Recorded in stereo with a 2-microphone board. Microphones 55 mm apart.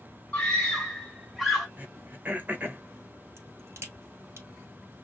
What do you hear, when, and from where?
0.3 s a scream: 20° left (ahead or behind), 2 m; by 1.7 s 5° right (ahead or behind), 2 m
1.8 s throat clearing: 30° right (ahead or behind), 0.8 m
3.4 s a crack: 50° right (ahead or behind), 1.4 m